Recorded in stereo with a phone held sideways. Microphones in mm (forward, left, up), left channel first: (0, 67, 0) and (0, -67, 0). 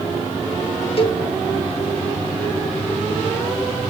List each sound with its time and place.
1.0 s a cowbell: 45° left (ahead or behind), 1.7 m